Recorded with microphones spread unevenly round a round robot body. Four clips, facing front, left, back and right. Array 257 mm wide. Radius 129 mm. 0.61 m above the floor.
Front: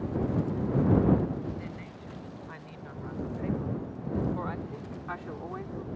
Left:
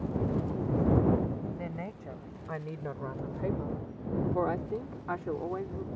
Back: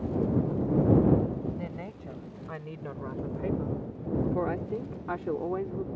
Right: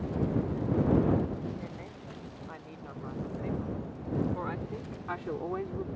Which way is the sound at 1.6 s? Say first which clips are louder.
Left 4 dB, back 3 dB; 105° left.